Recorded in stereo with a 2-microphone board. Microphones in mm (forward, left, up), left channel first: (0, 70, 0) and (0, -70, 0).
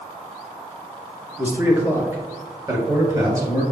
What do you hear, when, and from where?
1.4 s a man speaking: 15° right (ahead or behind), 1.1 m; by 3.6 s 25° right (ahead or behind), 1.8 m